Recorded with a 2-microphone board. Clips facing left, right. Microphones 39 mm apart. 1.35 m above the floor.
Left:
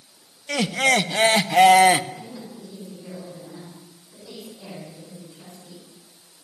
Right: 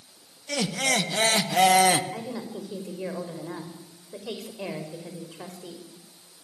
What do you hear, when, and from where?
0.5 s laughter: 30° left (ahead or behind), 1.5 m
2.1 s a woman speaking: 85° right, 5.5 m